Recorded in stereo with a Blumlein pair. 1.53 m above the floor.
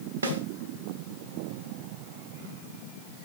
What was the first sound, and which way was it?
A snare drum, 65° right.